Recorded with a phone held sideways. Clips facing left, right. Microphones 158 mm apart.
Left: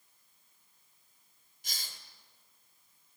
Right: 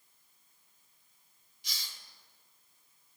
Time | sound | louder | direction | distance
1.6 | a hiss | left 1 dB | 50° left (ahead or behind) | 1.9 m